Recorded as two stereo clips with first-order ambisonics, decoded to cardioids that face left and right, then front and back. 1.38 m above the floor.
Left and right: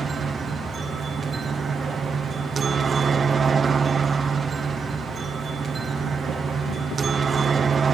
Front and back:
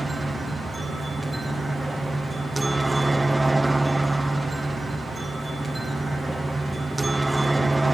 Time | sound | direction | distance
0.0 | a helicopter | 105° right | ?